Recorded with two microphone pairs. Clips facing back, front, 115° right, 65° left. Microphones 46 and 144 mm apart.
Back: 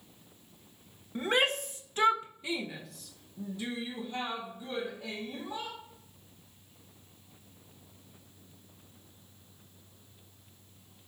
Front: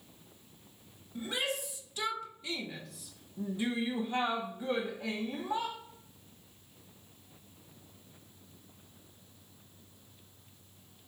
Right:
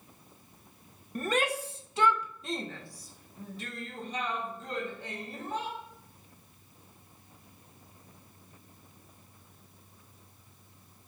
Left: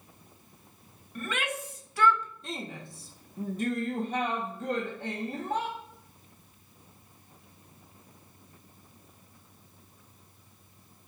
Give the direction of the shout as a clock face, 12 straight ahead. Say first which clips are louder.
Back 7 dB, right 5 dB; 5 o'clock.